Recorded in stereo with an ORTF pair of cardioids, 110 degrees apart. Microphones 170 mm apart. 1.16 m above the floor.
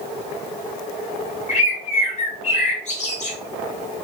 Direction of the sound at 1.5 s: 45° left.